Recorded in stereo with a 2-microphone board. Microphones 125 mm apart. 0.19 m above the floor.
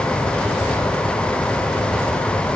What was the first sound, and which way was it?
Only background noise.